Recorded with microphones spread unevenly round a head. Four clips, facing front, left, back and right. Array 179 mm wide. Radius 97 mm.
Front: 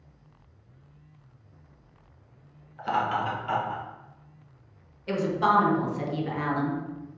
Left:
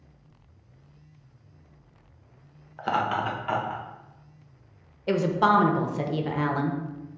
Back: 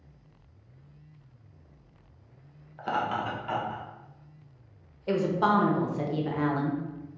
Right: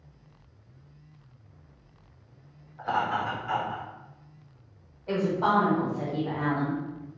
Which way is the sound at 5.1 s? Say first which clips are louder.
Left 3 dB, front 1 dB; 95° left.